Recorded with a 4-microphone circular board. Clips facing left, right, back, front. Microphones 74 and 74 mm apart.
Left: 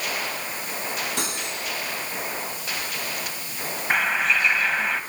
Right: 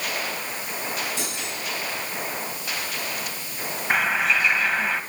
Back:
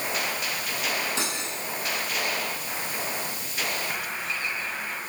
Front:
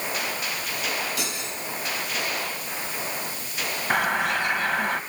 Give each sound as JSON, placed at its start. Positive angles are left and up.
{"t": 1.2, "sound": "cutlery clinking", "azimuth_deg": 120, "distance_m": 7.0}
{"t": 3.9, "sound": "a bird", "azimuth_deg": 0, "distance_m": 1.7}